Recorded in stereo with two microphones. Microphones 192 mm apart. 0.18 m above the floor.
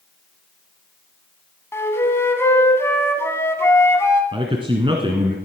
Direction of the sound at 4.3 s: 25° right (ahead or behind).